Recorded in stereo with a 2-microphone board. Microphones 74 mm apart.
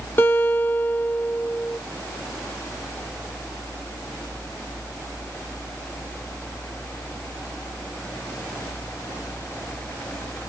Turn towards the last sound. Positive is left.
turn(degrees=30)  # may be behind; listen again after turning